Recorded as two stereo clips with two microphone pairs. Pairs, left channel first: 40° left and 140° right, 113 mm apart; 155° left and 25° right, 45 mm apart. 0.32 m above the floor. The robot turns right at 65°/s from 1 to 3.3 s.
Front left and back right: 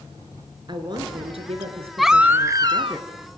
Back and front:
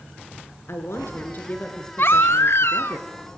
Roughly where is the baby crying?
Behind left.